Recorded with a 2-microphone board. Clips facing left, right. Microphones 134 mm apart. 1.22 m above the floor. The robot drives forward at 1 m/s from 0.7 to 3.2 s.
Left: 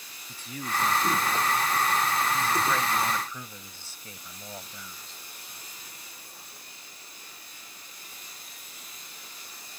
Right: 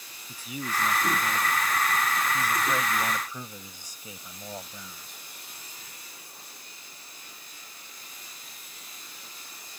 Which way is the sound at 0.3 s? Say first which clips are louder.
Even; 10° right (ahead or behind).